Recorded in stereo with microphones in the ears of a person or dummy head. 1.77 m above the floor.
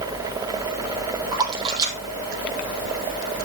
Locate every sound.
1.3 s a splash: 20° right (ahead or behind), 2.5 m